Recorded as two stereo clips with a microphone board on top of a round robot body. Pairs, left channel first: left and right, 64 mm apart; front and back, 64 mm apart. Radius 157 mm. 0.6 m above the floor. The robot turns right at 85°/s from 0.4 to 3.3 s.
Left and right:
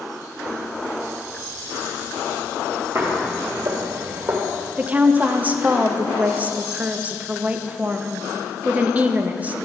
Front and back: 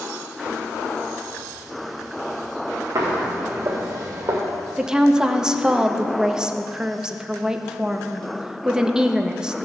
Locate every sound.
3.0 s footsteps: 135° right, 1.1 m
4.8 s a woman speaking: 115° right, 0.8 m